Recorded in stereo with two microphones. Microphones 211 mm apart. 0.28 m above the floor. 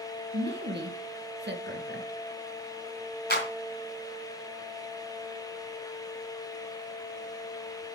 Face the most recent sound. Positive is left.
turn(degrees=60)  # may be behind; listen again after turning